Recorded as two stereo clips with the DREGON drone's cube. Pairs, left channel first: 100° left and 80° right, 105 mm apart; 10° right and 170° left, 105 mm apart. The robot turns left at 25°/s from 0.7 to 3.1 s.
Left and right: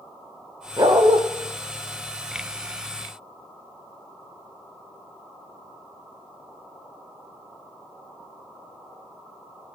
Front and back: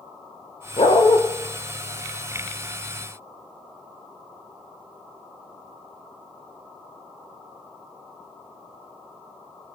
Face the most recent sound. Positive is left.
turn(degrees=-85)